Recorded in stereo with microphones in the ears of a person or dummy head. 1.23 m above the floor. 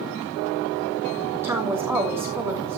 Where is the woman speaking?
Centre (ahead or behind), 2.5 m.